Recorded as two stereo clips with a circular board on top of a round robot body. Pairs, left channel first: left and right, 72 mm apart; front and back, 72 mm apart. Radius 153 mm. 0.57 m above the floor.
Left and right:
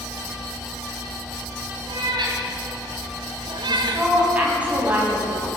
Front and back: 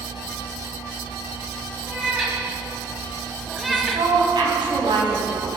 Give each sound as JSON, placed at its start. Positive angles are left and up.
{"t": 1.9, "sound": "a cat meowing", "azimuth_deg": -95, "distance_m": 3.0}
{"t": 3.7, "sound": "a woman speaking", "azimuth_deg": -165, "distance_m": 4.5}